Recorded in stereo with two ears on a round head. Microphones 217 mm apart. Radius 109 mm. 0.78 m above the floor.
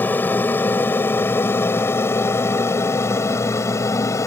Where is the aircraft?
10° left (ahead or behind); by 4.3 s 15° left (ahead or behind).